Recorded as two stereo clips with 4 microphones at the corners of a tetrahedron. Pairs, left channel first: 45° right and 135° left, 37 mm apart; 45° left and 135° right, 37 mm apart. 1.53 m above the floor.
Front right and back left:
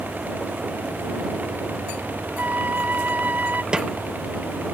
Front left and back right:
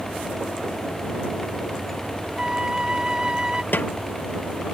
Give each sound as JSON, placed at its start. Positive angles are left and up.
{"t": 2.4, "sound": "a flute", "azimuth_deg": 160}
{"t": 3.7, "sound": "a snare drum", "azimuth_deg": 70}